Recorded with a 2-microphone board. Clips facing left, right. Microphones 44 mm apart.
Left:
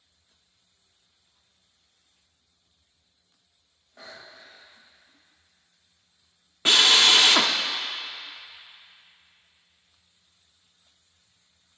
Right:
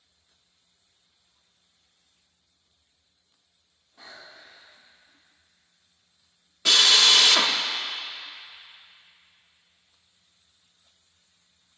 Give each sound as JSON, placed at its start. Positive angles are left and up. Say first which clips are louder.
{"t": 4.0, "sound": "breathing", "louder": "left 1 dB", "side_deg": 85, "distance_m": 2.0}
{"t": 6.7, "sound": "a drill", "louder": "left 1 dB", "side_deg": 30, "distance_m": 0.6}